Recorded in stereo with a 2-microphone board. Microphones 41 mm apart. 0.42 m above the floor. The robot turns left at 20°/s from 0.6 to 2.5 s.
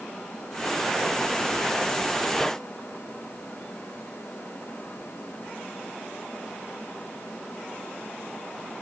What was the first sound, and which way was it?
Only background noise.